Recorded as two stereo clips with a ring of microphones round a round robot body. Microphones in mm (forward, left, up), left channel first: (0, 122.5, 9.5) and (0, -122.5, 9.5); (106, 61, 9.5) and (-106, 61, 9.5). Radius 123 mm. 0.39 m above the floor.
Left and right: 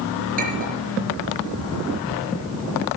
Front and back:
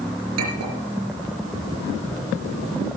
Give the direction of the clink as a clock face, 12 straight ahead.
5 o'clock.